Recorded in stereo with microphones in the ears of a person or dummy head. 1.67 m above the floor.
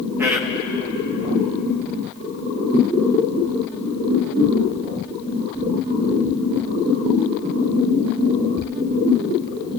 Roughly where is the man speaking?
Centre.